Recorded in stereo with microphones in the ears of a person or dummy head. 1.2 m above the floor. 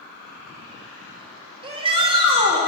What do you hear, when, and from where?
1.6 s a shout: 30° right (ahead or behind), 1.7 m